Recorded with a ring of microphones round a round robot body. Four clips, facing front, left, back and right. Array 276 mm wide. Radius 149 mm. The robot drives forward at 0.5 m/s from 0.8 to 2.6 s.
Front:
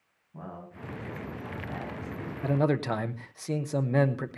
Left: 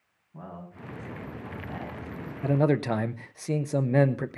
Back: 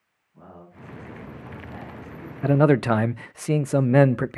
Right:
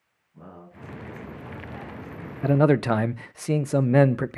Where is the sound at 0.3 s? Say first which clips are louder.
Left 2 dB, front 3 dB; 40° left, 8.5 m.